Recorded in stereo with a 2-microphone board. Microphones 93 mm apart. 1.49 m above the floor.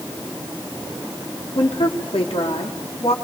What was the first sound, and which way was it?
A woman speaking, 90° left.